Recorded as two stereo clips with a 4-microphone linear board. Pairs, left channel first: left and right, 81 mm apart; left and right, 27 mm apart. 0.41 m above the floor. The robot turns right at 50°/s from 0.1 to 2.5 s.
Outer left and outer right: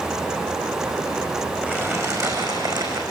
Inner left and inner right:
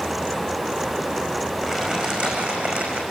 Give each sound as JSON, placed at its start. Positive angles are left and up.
{"t": 1.6, "sound": "crumpling", "azimuth_deg": -160, "distance_m": 5.0}